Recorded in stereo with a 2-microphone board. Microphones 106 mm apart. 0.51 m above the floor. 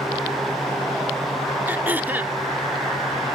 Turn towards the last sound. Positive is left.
turn(degrees=-20)  # may be behind; listen again after turning